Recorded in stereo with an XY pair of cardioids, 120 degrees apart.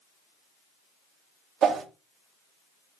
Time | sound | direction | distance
1.6 | a whoosh | 55° right | 0.9 m